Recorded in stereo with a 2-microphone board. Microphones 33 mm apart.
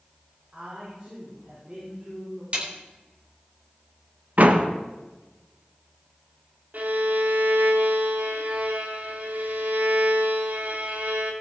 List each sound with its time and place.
0.5 s a man speaking: 30° right (ahead or behind), 5.5 m
2.5 s a snare drum: 45° right (ahead or behind), 3.5 m
4.4 s a door slam: 55° right (ahead or behind), 1.0 m
6.7 s a violin: 60° right (ahead or behind), 1.5 m